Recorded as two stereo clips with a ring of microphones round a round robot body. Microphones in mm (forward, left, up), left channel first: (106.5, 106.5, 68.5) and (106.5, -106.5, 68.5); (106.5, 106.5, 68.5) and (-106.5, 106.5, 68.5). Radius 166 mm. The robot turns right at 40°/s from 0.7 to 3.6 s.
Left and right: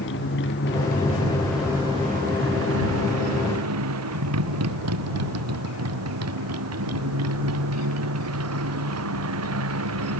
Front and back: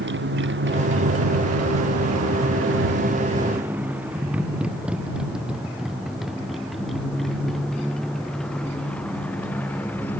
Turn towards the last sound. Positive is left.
turn(degrees=-85)